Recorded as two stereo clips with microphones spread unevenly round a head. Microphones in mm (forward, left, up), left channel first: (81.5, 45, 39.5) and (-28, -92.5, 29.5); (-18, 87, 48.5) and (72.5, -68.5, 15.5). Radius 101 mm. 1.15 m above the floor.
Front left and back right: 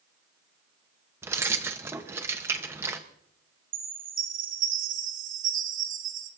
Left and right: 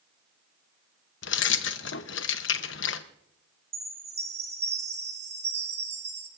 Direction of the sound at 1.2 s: 150° left.